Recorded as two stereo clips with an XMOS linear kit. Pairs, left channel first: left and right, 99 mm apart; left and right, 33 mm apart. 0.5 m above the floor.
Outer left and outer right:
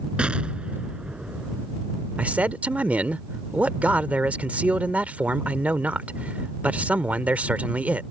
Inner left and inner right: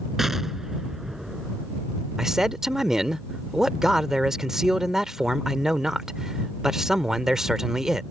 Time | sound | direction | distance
0.2 | an explosion | 10° right (ahead or behind) | ?
2.2 | a man speaking | 15° right (ahead or behind) | ?